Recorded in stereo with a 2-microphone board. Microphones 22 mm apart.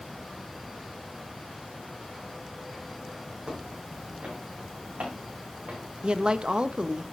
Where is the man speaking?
50° right (ahead or behind), 0.9 m.